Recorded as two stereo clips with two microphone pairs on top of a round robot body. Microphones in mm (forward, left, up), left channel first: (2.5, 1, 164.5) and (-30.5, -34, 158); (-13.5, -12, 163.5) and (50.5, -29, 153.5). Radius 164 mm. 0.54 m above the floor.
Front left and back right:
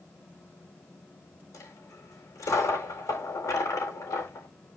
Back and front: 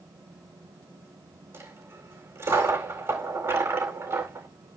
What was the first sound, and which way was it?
A dropped coin, 40° left.